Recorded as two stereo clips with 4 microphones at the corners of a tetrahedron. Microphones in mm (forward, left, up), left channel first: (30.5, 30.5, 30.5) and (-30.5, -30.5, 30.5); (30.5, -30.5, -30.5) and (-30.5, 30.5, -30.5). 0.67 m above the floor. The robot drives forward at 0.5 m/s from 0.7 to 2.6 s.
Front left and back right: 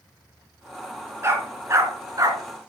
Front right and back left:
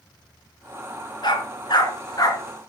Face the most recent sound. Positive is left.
turn(degrees=-90)